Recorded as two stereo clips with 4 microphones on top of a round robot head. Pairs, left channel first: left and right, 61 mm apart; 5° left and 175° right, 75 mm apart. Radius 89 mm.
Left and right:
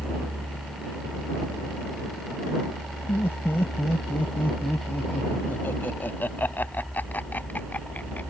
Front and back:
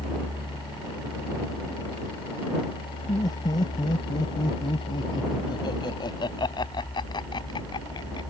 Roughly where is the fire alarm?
I don't hear a fire alarm.